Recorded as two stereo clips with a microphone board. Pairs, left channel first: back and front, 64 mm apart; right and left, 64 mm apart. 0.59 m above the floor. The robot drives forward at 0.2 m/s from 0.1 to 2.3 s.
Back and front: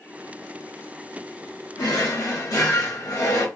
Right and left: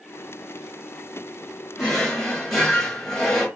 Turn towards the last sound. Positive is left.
turn(degrees=-175)